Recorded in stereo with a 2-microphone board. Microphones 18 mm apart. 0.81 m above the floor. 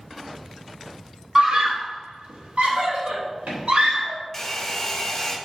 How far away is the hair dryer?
About 1.6 m.